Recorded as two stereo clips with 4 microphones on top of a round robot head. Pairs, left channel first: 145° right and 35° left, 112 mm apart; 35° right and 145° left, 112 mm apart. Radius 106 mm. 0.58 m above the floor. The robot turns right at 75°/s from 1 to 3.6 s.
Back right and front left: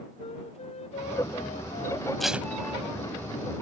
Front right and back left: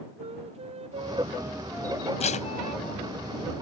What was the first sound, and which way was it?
A flute, straight behind.